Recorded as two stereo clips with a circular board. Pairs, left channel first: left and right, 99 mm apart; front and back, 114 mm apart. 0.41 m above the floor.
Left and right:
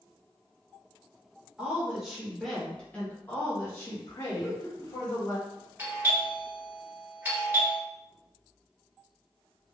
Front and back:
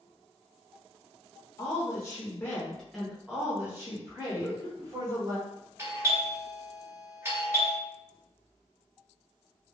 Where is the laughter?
50° right, 0.8 m.